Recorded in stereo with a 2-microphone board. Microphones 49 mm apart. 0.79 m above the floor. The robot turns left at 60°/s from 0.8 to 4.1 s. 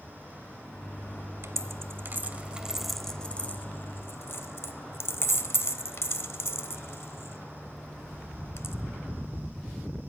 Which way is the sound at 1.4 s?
65° right (ahead or behind).